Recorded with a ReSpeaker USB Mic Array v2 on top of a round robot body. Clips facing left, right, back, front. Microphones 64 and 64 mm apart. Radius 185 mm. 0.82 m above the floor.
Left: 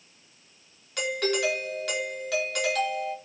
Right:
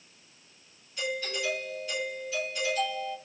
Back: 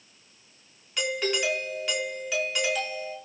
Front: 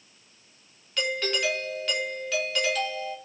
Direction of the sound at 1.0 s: 100° left.